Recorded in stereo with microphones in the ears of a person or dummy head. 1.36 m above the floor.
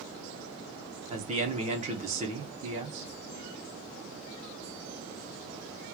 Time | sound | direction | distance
1.1 | a man speaking | 35° right (ahead or behind) | 1.2 m